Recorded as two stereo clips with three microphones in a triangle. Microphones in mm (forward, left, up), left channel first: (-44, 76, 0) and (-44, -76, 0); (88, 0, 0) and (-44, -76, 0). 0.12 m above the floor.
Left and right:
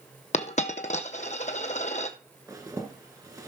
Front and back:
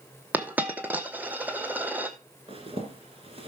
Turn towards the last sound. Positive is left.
turn(degrees=-145)